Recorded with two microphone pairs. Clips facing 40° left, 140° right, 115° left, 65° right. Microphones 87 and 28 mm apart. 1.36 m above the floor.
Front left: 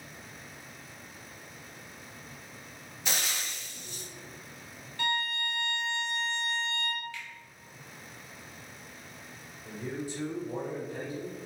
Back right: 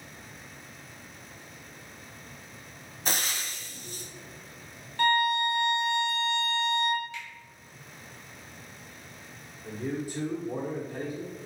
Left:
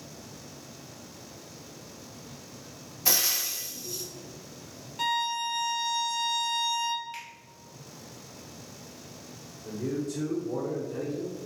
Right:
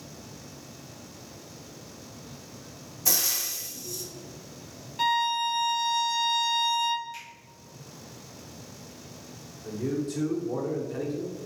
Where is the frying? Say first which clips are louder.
Back right 2 dB, left 1 dB; 170° left, 0.6 m.